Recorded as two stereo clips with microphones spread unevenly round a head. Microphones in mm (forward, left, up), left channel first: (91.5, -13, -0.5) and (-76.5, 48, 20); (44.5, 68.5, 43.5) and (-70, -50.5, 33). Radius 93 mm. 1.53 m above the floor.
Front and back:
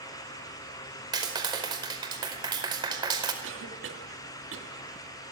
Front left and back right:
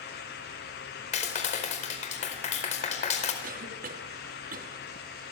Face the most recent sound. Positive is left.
turn(degrees=-170)